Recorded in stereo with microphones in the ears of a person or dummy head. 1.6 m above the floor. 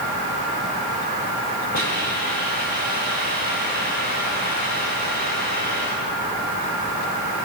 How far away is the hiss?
About 6 m.